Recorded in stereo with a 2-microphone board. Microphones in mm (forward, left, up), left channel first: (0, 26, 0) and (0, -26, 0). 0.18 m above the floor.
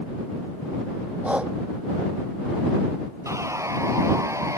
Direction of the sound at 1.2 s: 25° right (ahead or behind).